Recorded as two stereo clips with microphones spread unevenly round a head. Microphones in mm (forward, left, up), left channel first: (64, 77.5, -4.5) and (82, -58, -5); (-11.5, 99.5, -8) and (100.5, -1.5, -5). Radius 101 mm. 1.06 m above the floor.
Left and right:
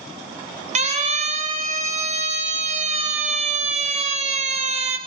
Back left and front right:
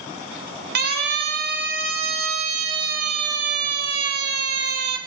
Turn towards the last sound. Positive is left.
turn(degrees=-45)